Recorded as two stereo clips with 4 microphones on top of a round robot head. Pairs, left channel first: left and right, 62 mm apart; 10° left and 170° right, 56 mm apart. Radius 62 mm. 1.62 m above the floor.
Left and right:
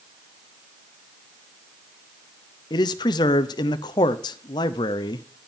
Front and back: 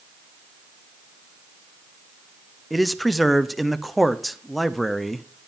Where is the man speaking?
100° left, 0.5 m.